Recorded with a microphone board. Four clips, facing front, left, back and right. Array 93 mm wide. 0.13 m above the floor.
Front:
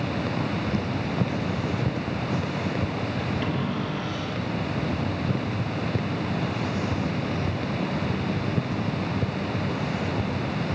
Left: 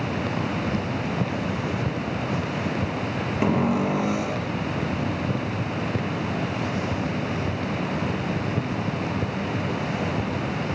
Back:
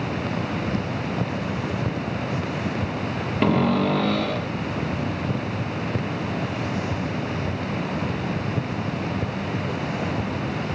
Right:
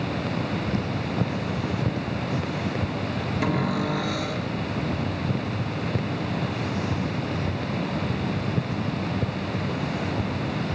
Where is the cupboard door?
155° left, 1.5 m.